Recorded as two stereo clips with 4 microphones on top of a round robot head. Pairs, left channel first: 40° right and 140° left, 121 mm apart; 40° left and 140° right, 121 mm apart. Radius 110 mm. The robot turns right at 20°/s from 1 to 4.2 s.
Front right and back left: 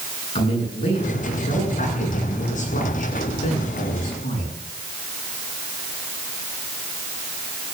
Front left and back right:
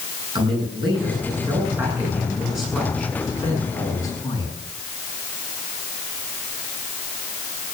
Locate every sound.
0.3 s a man speaking: 85° right, 8.5 m; by 4.5 s 20° right, 8.5 m